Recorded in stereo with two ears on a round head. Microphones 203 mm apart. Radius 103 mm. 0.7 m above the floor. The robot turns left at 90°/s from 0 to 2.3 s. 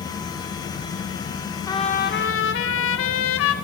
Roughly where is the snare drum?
No snare drum in this recording.